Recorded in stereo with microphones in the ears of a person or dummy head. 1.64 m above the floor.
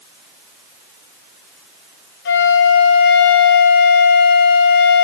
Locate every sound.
2.2 s a flute: 50° left (ahead or behind), 1.1 m